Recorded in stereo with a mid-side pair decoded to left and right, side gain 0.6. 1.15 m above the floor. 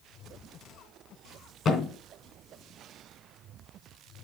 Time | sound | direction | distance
1.6 | a thud | 45° left | 3 m